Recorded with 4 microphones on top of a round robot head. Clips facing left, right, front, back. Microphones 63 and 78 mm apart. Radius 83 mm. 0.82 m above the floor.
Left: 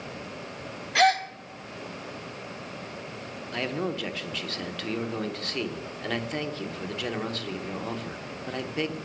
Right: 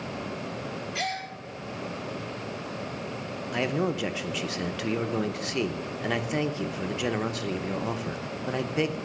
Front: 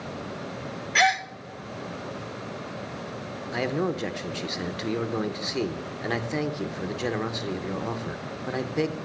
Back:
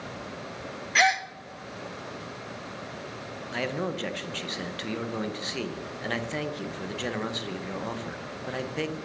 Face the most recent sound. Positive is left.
turn(degrees=-45)